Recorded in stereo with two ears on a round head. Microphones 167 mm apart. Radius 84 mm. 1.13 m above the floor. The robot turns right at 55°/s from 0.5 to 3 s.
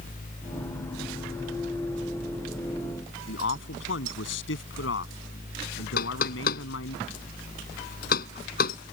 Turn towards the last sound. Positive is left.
turn(degrees=50)  # may be behind; listen again after turning